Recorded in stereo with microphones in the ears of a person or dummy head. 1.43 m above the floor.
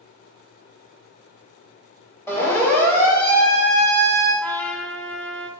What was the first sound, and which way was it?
A siren, 15° left (ahead or behind).